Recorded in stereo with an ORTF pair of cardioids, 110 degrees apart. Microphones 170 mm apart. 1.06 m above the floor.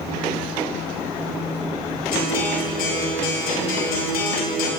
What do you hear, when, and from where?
2.1 s a guitar: 70° left, 2 m